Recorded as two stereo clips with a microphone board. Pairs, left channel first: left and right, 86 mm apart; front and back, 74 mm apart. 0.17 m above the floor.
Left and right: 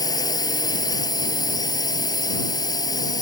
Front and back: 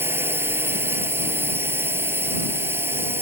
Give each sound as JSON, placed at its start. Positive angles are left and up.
{"t": 0.0, "sound": "a drone", "azimuth_deg": 125}